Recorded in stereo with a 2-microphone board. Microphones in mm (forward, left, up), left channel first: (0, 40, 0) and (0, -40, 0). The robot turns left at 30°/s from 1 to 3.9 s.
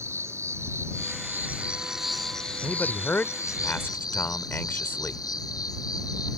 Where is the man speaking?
15° left (ahead or behind); by 5.2 s 30° left (ahead or behind).